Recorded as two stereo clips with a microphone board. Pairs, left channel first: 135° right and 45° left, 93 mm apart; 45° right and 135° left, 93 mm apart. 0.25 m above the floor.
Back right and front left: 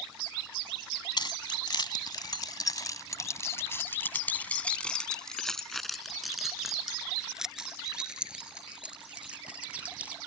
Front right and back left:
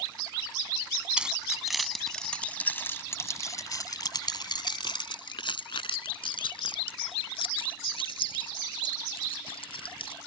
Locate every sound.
1.2 s keys jangling: 150° right; by 10.2 s 30° right